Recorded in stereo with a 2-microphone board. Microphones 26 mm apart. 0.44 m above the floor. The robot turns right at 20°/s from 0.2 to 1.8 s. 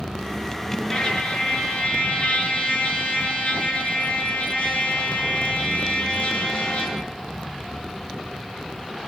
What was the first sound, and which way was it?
A trumpet, 30° left (ahead or behind).